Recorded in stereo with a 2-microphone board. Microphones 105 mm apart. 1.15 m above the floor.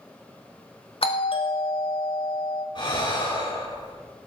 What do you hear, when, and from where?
1.0 s a doorbell: 60° left (ahead or behind), 1.6 m
2.8 s breathing: 50° left (ahead or behind), 7.5 m